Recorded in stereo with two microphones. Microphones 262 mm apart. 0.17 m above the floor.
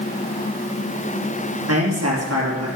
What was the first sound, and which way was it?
A man speaking, 70° right (ahead or behind).